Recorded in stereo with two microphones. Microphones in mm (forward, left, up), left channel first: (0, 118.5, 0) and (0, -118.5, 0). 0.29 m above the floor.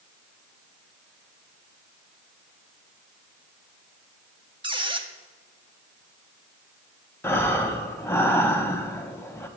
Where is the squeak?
20° right (ahead or behind), 0.5 m.